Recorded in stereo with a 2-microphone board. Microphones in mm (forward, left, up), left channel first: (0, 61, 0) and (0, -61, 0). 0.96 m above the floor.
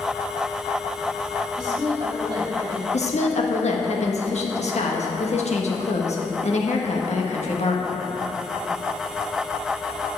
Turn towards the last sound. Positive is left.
turn(degrees=65)  # may be behind; listen again after turning